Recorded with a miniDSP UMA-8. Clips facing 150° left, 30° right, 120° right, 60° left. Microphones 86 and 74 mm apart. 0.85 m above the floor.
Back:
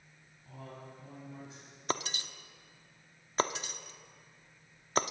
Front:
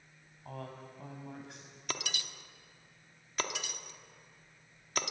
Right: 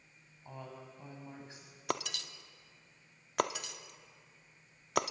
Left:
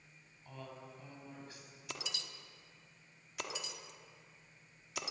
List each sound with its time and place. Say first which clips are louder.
0.5 s a woman speaking: front 3 dB, right 2 dB; 55° right, 6 m
1.9 s breaking glass: back 5 dB, right 10 dB; 150° right, 0.9 m